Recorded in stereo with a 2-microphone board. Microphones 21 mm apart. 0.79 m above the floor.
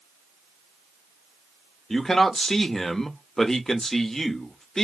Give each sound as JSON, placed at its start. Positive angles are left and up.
{"t": 1.9, "sound": "a man speaking", "side_deg": 20, "distance_m": 1.2}